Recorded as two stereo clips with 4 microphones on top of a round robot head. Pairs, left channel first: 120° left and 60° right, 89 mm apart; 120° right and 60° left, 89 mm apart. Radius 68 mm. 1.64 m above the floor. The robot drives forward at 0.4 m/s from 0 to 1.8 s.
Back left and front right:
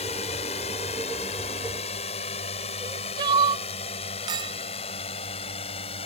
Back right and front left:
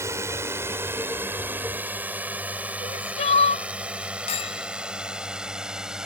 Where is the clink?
100° right.